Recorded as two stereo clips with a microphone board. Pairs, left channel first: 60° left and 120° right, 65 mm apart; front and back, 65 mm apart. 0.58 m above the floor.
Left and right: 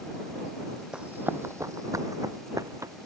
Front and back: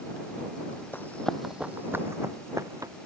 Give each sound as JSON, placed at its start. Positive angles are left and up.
{"t": 0.9, "sound": "running footsteps", "azimuth_deg": -50}